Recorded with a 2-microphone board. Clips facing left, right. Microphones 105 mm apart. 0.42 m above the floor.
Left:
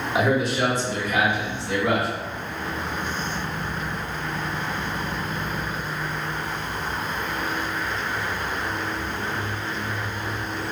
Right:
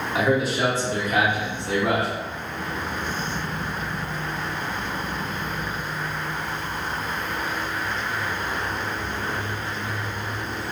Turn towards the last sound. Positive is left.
turn(degrees=-65)  # may be behind; listen again after turning